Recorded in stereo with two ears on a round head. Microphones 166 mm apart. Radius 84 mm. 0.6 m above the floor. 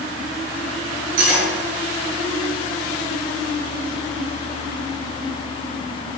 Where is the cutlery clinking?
85° right, 5.5 m.